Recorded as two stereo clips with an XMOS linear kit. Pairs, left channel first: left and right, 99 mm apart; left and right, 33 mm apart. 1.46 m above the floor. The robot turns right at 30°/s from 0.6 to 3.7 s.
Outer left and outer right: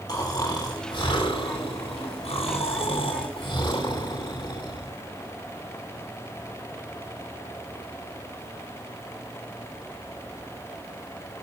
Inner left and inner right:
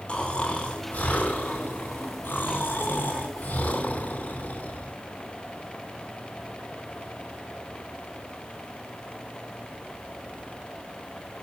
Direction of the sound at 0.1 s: 40° left.